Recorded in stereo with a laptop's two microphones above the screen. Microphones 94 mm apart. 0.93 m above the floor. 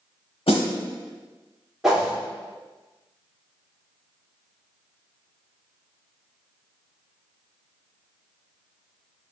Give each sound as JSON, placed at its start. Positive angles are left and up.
{"t": 0.5, "sound": "a snare drum", "side_deg": 80, "distance_m": 1.1}
{"t": 1.8, "sound": "a whoosh", "side_deg": -5, "distance_m": 1.4}